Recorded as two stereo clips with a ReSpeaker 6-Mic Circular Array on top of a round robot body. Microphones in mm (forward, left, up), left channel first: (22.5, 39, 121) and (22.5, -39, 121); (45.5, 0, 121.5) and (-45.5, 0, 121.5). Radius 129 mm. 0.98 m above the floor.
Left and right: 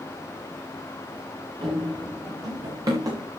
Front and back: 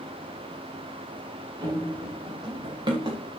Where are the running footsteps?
130° right, 6 m; by 3.2 s 140° right, 6 m.